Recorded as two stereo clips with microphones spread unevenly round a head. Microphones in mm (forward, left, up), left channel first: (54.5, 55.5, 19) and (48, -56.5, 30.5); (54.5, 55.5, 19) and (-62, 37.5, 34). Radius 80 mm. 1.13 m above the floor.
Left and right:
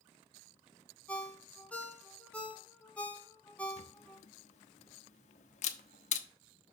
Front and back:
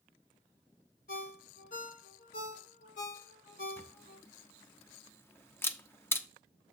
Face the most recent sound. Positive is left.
turn(degrees=80)